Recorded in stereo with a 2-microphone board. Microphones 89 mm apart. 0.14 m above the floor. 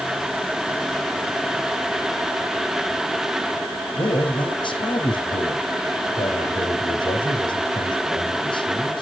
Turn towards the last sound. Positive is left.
turn(degrees=65)  # may be behind; listen again after turning